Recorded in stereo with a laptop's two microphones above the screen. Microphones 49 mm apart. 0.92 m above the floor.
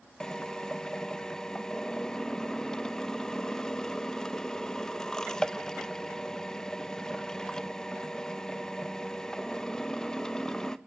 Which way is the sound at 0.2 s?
15° left (ahead or behind).